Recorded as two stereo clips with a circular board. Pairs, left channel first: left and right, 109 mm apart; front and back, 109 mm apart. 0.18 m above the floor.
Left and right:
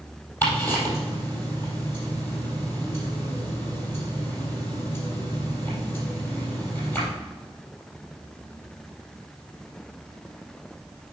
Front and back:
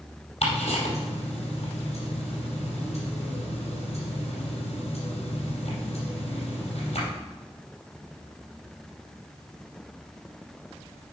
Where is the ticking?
20° left, 4 m.